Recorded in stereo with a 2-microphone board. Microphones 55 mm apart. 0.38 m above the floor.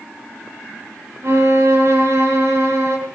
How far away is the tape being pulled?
I don't hear tape being pulled.